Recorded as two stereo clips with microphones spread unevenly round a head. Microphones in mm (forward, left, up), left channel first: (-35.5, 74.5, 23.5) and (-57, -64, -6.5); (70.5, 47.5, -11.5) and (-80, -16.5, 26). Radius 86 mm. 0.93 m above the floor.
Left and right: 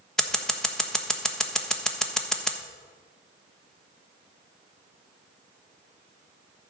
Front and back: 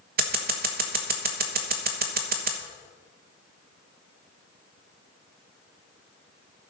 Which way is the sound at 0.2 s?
175° left.